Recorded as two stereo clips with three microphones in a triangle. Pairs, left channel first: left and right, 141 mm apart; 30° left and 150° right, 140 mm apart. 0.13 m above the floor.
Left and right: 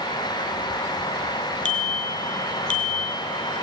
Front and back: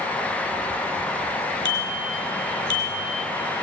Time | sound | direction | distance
1.6 | a bicycle bell | 85° left | 2.5 m